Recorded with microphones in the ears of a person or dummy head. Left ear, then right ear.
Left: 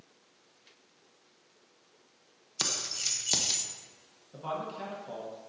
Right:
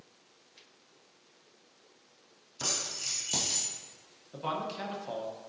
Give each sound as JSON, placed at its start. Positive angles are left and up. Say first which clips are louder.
{"t": 2.6, "sound": "keys jangling", "louder": "left 2 dB", "side_deg": 55, "distance_m": 0.7}
{"t": 4.3, "sound": "a man speaking", "louder": "right 2 dB", "side_deg": -15, "distance_m": 0.8}